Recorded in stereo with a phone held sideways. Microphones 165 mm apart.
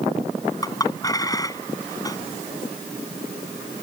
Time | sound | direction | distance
0.6 | a clink | 20° left (ahead or behind) | ?